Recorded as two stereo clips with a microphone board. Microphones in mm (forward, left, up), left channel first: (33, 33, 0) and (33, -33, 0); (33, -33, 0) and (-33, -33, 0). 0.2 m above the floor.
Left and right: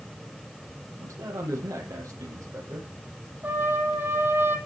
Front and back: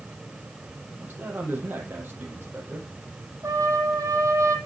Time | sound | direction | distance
1.0 | a man speaking | 120° right | 9 m
3.4 | a trumpet | 140° right | 8.5 m